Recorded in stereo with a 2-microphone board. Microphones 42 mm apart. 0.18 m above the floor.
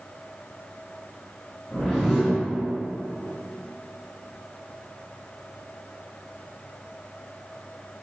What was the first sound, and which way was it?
A whoosh, centre (ahead or behind).